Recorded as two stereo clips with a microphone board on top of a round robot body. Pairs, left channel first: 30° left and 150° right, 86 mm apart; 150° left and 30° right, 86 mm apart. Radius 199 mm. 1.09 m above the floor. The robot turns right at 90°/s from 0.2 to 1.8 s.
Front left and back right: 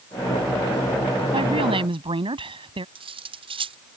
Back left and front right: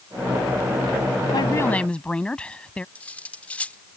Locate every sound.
1.3 s a woman speaking: 175° right; by 2.9 s 135° right
3.0 s cutlery clinking: 135° right